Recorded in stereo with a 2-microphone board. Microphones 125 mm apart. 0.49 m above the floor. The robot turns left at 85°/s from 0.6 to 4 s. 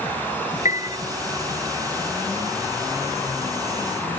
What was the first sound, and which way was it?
A piano, 85° left.